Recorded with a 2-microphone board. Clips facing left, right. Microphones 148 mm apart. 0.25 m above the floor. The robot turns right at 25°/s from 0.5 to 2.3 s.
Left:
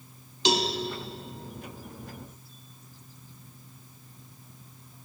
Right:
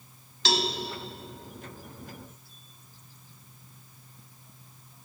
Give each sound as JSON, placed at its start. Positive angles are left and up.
{"t": 0.5, "sound": "a cowbell", "side_deg": 20, "distance_m": 0.9}